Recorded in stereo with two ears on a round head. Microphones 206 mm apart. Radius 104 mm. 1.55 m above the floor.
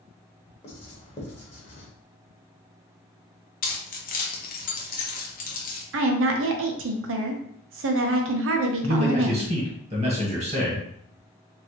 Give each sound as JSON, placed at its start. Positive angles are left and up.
{"t": 0.6, "sound": "writing", "side_deg": 30, "distance_m": 1.1}
{"t": 3.6, "sound": "keys jangling", "side_deg": 40, "distance_m": 0.8}
{"t": 5.9, "sound": "a woman speaking", "side_deg": -60, "distance_m": 0.7}
{"t": 8.8, "sound": "a man speaking", "side_deg": -30, "distance_m": 1.5}